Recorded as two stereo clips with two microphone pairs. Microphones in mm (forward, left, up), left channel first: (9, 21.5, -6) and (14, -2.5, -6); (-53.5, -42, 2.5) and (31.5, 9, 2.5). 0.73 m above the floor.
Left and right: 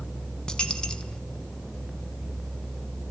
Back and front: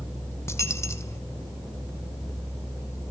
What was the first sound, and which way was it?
A dropped coin, 155° left.